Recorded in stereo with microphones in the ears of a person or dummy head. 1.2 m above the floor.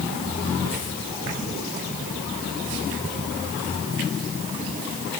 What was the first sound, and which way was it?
Only background noise.